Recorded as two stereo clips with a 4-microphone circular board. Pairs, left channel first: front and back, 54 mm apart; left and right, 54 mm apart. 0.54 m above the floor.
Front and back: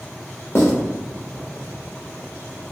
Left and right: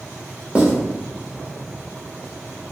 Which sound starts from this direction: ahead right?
Writing, at 0.6 s.